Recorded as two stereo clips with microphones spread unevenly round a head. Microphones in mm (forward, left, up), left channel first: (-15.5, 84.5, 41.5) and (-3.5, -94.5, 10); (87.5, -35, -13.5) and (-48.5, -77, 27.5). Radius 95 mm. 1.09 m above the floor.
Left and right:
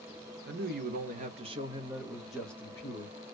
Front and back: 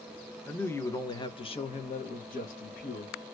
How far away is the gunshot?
No gunshot in this recording.